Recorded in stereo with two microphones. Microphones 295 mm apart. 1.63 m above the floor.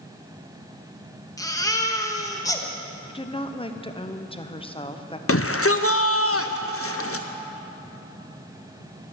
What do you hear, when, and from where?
1.4 s a baby crying: 10° left (ahead or behind), 1.1 m
3.1 s a woman speaking: 15° left (ahead or behind), 0.9 m
5.3 s a shout: 50° left (ahead or behind), 0.5 m